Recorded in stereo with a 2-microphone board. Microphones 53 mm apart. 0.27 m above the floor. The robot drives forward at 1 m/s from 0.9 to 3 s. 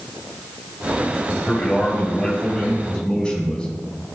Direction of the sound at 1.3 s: 25° left (ahead or behind).